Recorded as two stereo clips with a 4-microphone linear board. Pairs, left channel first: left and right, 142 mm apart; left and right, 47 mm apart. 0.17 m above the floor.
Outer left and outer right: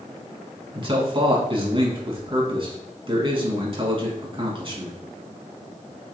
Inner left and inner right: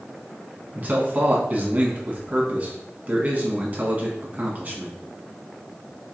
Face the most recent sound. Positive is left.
turn(degrees=-40)  # may be behind; listen again after turning